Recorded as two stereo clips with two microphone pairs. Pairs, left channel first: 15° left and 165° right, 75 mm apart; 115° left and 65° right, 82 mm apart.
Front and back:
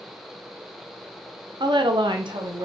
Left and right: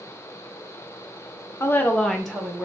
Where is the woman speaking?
170° left, 0.5 m; by 2.7 s 145° right, 0.9 m.